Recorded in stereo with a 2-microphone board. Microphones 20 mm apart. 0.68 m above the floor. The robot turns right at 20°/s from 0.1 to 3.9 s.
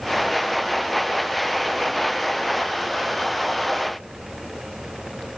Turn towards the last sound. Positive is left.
No sound to turn to.